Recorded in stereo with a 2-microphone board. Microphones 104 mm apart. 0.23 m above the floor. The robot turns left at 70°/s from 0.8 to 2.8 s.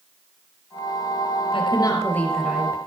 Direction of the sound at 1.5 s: 60° left.